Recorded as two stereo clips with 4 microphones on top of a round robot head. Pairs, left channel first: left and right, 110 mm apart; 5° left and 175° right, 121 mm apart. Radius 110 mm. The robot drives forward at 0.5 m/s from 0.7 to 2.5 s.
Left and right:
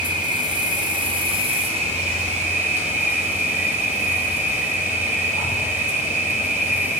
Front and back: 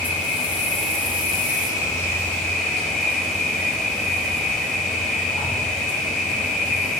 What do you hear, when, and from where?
0.0 s an insect: 45° right, 1.5 m; by 7.0 s 80° right, 1.0 m